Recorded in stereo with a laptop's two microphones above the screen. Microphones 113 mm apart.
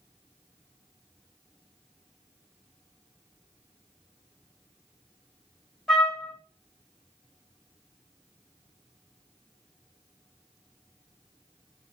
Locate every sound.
5.9 s a trumpet: 5° left (ahead or behind), 1.3 m